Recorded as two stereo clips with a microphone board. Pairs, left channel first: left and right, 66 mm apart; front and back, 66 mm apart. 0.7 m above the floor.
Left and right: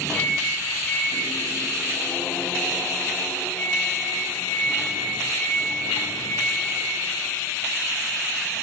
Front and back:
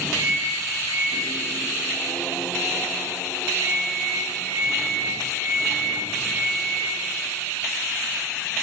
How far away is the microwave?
About 3 m.